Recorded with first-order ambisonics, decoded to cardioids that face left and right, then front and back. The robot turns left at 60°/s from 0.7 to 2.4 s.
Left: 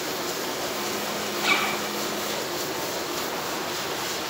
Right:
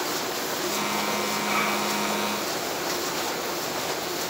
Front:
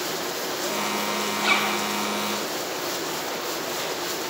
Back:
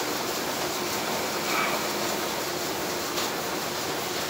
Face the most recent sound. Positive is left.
turn(degrees=-5)